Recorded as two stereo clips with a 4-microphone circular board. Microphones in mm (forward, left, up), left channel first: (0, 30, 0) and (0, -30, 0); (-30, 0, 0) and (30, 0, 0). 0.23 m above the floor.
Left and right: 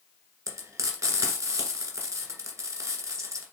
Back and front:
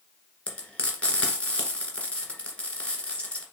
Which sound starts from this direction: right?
Frying, at 0.5 s.